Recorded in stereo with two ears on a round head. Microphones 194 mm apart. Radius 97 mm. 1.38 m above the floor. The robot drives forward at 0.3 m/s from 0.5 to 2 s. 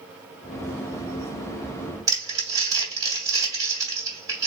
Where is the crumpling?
15° right (ahead or behind), 1.7 m.